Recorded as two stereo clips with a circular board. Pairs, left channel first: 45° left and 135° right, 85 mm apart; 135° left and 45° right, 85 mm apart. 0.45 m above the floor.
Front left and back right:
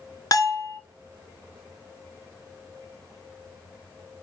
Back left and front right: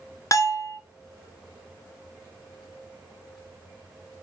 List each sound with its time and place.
0.3 s a bell: 90° left, 1.0 m